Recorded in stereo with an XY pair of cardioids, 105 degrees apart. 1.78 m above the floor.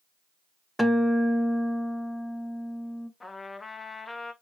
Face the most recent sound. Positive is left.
turn(degrees=20)